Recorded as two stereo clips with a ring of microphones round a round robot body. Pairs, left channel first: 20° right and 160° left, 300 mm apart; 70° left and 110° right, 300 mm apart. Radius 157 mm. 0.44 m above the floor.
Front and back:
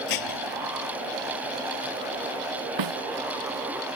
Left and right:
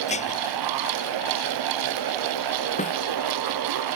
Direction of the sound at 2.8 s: 135° left.